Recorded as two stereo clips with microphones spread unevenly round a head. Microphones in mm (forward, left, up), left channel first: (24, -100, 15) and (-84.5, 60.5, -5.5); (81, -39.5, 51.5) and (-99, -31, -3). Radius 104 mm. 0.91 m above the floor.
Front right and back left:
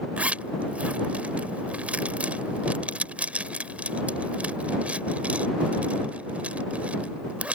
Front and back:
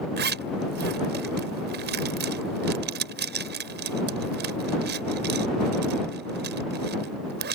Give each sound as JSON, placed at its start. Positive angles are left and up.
{"t": 0.2, "sound": "a zipper", "azimuth_deg": -150}